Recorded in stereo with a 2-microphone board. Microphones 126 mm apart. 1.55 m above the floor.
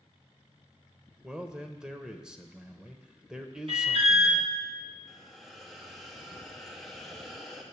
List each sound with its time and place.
1.2 s a man speaking: 5° right (ahead or behind), 0.6 m
3.7 s an alarm: 55° right (ahead or behind), 1.6 m
5.1 s a hiss: centre (ahead or behind), 1.0 m